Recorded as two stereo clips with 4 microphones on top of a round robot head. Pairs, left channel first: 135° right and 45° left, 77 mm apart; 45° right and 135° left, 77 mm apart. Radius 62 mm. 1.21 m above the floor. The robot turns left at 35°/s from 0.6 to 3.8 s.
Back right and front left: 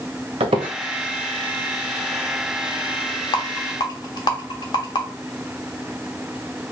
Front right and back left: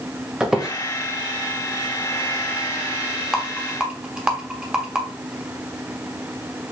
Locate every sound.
0.4 s a squeak: 55° left, 0.8 m; by 0.7 s 50° left, 0.8 m
3.3 s a rattle: 125° right, 1.1 m; by 5.0 s 145° right, 1.1 m